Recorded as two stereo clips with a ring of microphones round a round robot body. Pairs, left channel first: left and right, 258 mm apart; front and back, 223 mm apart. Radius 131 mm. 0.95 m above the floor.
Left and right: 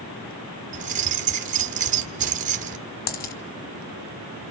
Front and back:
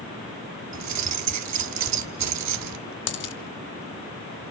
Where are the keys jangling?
150° right, 1.5 m.